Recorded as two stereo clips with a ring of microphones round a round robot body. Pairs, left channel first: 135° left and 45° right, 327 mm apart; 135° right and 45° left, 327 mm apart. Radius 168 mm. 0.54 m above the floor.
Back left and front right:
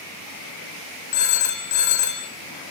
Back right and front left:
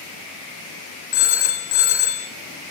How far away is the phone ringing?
About 2 m.